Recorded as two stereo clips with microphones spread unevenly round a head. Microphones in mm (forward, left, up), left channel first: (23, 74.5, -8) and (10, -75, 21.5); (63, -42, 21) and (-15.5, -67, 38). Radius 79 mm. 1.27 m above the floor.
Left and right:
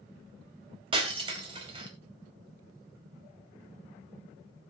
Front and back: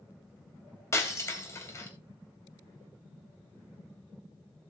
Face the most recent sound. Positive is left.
turn(degrees=-40)